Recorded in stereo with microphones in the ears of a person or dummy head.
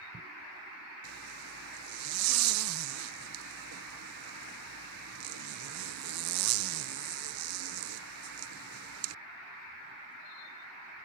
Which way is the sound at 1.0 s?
75° right (ahead or behind).